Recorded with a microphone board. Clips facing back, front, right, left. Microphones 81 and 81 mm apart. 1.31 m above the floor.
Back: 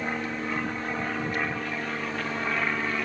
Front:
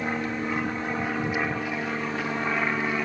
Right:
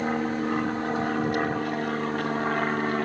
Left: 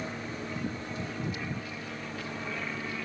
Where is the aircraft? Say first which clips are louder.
Front 2 dB, right 11 dB; 80° right; by 3.0 s 75° right.